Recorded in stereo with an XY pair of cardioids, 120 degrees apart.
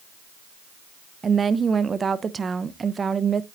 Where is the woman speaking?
30° right, 0.8 m.